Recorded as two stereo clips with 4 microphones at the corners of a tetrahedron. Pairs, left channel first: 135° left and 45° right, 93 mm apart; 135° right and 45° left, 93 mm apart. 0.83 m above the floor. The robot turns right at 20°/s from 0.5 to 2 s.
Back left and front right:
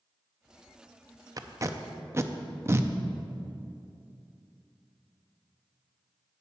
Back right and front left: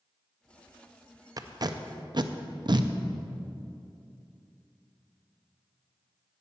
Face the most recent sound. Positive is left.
turn(degrees=15)